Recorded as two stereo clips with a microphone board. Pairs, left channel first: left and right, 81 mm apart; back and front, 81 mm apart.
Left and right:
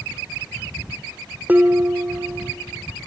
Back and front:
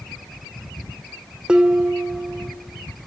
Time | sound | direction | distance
1.5 | dishes clattering | 65° right | 0.9 m